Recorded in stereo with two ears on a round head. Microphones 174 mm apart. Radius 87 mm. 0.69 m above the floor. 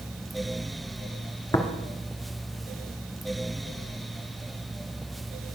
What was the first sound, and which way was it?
Tapping, 15° left (ahead or behind).